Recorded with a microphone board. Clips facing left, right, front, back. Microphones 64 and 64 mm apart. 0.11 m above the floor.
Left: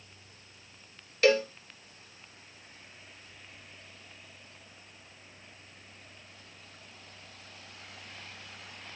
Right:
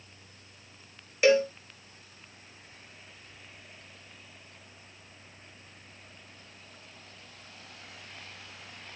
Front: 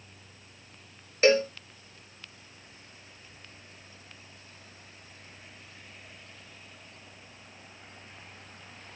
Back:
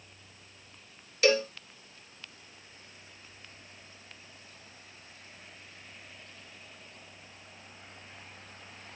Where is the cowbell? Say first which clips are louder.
Right 2 dB, front 3 dB; 20° right, 0.9 m.